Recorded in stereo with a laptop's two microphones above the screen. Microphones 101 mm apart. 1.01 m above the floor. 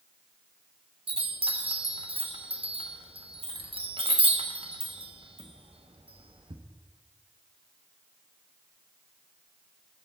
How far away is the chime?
About 1.1 m.